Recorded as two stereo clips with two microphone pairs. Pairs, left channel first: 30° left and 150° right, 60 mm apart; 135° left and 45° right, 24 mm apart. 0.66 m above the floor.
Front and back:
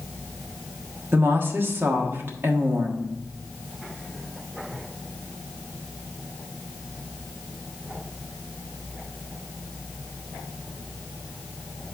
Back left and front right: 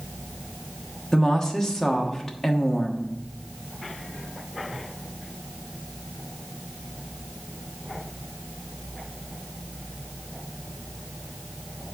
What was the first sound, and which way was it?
A woman speaking, 165° right.